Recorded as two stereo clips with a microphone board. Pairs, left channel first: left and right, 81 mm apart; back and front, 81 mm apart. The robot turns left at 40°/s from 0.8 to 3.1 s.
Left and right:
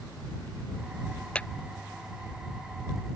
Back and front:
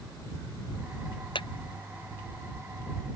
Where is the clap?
165° left; by 1.5 s 160° left.